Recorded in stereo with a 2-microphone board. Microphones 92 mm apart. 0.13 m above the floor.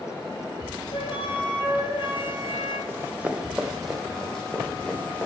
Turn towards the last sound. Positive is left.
turn(degrees=20)  # may be behind; listen again after turning